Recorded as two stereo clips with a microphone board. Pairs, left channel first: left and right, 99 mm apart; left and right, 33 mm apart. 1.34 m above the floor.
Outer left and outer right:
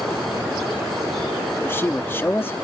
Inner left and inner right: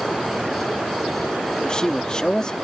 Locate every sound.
1.6 s a man speaking: 25° left (ahead or behind)